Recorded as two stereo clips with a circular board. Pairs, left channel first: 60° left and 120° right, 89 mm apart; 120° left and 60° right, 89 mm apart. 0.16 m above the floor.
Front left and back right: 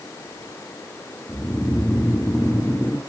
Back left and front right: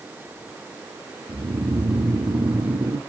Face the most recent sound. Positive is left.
turn(degrees=-25)